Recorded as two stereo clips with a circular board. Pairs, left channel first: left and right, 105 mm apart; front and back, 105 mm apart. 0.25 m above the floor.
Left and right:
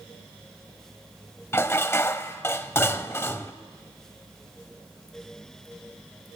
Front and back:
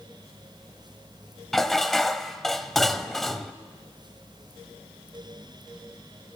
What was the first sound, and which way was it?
Dishes clattering, 85° left.